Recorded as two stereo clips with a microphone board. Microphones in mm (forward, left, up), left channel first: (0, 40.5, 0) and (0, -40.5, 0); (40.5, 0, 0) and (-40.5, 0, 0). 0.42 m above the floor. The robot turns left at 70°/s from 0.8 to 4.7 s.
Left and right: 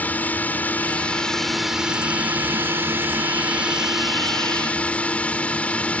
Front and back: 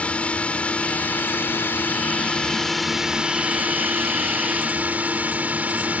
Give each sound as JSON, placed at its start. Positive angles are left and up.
{"t": 0.0, "sound": "a drone", "azimuth_deg": 55}